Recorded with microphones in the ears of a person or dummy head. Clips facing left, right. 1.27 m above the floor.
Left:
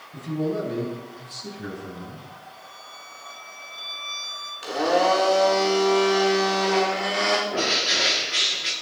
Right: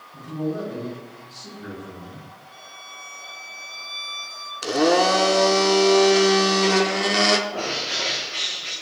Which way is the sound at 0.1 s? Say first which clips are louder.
Left 1 dB; 40° left (ahead or behind).